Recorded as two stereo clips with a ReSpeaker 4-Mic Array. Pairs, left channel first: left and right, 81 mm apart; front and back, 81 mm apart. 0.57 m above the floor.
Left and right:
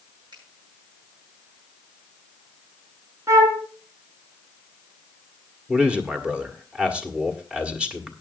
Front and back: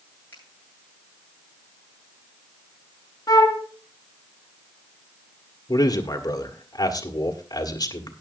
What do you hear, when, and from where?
0.3 s a finger snap: 60° right, 8.5 m
3.3 s a flute: 40° right, 2.5 m
5.7 s a man speaking: 15° right, 1.8 m